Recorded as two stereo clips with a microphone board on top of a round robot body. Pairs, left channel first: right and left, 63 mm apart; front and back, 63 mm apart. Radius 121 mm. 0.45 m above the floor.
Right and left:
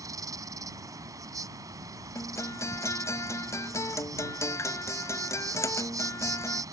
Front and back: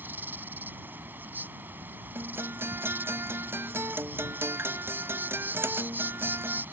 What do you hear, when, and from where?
0.0 s an insect: 120° left
2.1 s a guitar: 125° right